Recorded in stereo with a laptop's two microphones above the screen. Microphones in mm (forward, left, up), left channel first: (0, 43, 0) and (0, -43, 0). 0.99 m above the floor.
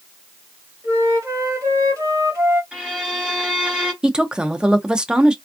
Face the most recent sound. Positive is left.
turn(degrees=-10)  # may be behind; listen again after turning